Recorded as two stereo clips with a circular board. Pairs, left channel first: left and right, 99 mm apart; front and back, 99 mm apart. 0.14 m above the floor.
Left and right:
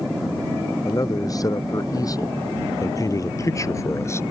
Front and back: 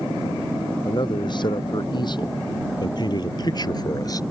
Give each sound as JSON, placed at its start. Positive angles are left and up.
{"t": 0.8, "sound": "a man speaking", "azimuth_deg": 40}